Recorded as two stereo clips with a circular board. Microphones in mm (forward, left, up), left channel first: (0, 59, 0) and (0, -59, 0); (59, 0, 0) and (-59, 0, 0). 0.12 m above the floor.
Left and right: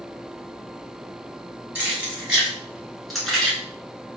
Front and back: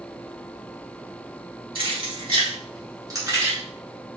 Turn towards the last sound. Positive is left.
turn(degrees=165)